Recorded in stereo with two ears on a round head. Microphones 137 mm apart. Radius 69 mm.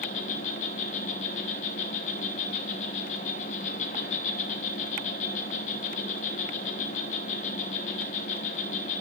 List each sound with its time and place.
0.0 s an insect: 50° left (ahead or behind), 0.9 m